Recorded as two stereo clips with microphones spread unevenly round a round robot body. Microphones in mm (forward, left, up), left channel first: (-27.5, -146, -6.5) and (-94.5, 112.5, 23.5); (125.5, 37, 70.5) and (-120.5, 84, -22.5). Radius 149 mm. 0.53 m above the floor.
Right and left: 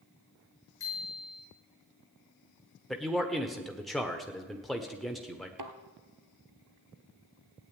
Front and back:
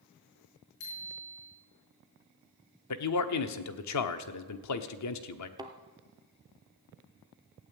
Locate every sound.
0.8 s a bicycle bell: 5° left, 5.5 m
2.9 s a man speaking: 10° left, 1.2 m
5.6 s a thud: 90° left, 1.7 m